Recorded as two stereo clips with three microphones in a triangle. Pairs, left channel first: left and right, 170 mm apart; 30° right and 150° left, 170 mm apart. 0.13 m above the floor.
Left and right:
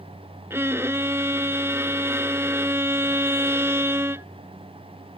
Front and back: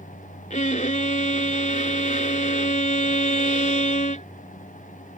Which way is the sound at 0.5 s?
20° right.